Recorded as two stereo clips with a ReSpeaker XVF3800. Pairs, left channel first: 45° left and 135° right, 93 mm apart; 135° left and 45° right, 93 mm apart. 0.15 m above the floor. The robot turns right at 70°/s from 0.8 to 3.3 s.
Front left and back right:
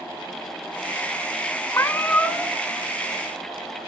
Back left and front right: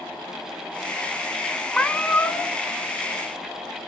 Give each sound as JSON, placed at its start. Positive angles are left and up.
{"t": 1.7, "sound": "a cat meowing", "azimuth_deg": 60, "distance_m": 0.7}